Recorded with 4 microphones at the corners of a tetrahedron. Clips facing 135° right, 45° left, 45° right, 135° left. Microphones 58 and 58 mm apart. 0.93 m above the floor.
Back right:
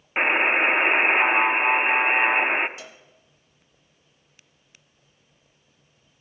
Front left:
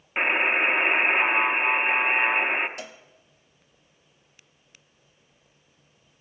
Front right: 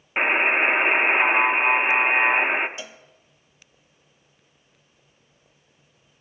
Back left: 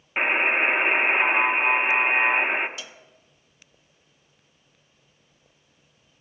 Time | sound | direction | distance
0.2 | a buzzer | 95° right | 0.8 m
2.8 | a cowbell | 15° left | 0.8 m